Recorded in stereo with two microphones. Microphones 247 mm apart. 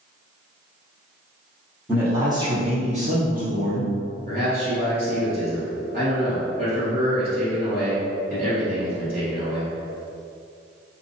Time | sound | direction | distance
1.9 | a man speaking | 5° right (ahead or behind) | 1.3 m
4.3 | a man speaking | 35° right (ahead or behind) | 1.8 m